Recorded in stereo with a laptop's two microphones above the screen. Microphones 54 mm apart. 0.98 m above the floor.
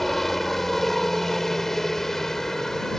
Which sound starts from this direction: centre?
A helicopter, at 0.0 s.